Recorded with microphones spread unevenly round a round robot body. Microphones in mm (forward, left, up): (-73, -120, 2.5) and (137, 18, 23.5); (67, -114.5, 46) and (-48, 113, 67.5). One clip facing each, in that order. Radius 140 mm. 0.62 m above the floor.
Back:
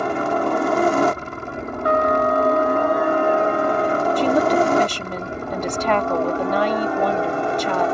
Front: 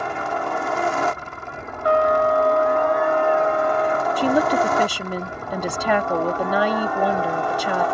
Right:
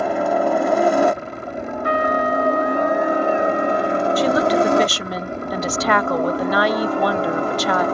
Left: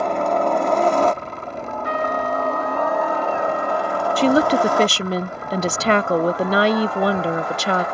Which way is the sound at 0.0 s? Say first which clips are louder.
Back 6 dB, right 1 dB; 140° right.